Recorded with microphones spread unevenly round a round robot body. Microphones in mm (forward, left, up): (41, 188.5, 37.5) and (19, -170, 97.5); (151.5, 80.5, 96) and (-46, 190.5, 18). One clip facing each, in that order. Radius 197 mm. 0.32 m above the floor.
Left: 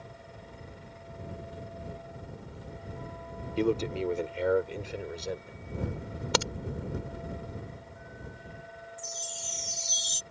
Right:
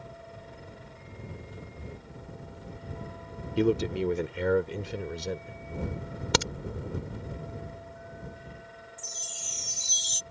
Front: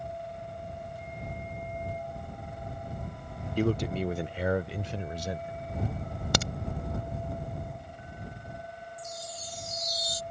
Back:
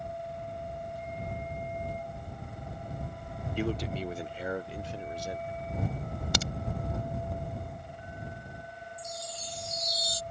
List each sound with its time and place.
3.6 s a man speaking: 40° right; by 5.6 s 25° right
6.3 s a crack: 40° right
9.0 s a chime: 170° right